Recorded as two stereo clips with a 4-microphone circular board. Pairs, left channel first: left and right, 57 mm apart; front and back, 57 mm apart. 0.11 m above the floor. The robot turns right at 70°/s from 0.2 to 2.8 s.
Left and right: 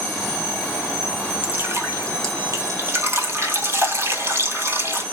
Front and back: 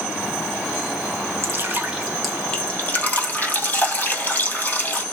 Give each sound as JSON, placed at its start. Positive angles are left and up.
{"t": 1.4, "sound": "dripping", "azimuth_deg": -145, "distance_m": 1.8}